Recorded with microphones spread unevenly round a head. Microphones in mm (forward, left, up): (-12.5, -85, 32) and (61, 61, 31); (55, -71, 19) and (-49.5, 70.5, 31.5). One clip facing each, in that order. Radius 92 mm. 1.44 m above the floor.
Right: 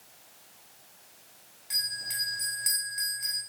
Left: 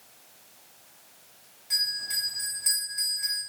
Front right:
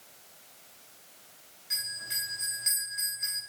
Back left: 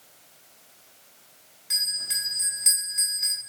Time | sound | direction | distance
1.7 | a bell | 155° left | 3.5 m